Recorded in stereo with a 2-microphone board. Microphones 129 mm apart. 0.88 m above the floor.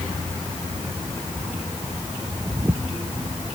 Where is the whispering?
No whispering in this recording.